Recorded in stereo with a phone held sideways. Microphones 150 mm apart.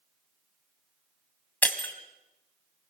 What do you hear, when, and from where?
1.6 s breaking glass: 10° left (ahead or behind), 1.9 m